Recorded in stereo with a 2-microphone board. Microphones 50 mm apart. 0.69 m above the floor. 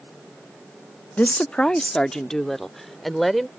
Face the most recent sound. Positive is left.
turn(degrees=0)  # may be behind; listen again after turning